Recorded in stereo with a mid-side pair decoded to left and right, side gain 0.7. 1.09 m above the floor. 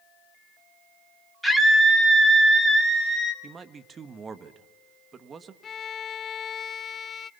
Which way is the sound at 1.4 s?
5° right.